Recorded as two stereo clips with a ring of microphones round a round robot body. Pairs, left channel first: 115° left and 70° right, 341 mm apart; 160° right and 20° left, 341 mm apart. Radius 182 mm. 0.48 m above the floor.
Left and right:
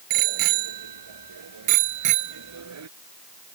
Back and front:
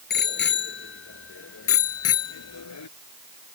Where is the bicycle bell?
95° right; by 2.9 s 115° right.